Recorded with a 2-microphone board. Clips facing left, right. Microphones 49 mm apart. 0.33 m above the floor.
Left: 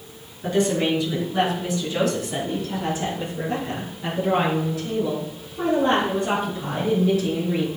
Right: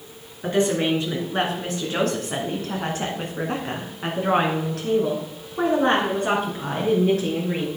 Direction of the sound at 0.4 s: 35° right (ahead or behind).